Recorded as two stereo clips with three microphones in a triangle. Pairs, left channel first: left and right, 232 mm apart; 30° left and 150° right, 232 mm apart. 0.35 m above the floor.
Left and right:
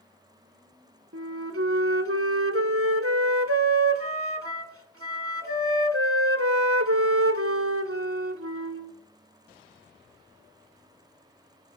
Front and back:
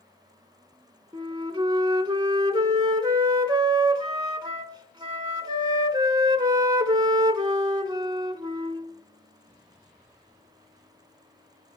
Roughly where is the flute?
Right.